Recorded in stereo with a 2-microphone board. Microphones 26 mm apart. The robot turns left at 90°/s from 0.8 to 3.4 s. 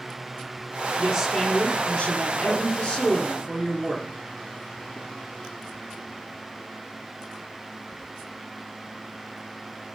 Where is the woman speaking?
145° right, 1.9 m; by 4.1 s straight ahead, 1.9 m.